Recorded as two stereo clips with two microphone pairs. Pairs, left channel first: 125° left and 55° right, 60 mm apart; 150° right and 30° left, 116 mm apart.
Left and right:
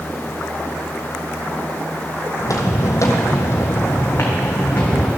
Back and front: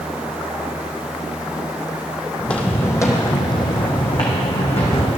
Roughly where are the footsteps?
Behind left.